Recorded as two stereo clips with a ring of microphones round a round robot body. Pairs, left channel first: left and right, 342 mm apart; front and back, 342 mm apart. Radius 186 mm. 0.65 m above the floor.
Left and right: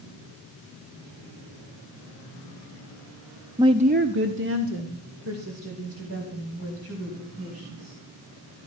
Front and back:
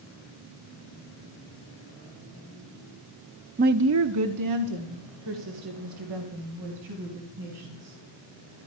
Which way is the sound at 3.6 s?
160° right.